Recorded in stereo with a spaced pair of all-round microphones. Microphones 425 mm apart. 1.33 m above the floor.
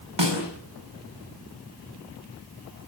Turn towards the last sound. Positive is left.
turn(degrees=-85)